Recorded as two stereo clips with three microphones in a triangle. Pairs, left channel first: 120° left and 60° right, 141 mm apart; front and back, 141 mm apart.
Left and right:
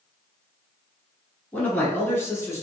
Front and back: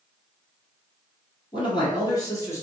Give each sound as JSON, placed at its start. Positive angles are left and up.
{"t": 1.5, "sound": "a man speaking", "azimuth_deg": 45, "distance_m": 1.8}